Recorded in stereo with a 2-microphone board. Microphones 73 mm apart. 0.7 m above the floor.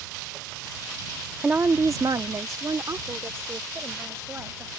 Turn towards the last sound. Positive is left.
turn(degrees=-35)  # may be behind; listen again after turning